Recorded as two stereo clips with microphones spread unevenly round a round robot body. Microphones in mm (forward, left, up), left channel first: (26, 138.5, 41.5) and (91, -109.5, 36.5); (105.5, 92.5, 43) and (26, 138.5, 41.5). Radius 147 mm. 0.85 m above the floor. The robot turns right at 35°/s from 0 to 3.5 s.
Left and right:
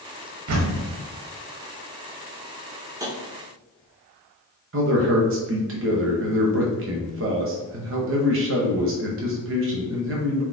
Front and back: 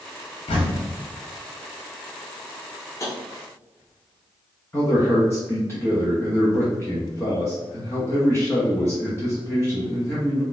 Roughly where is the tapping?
Ahead.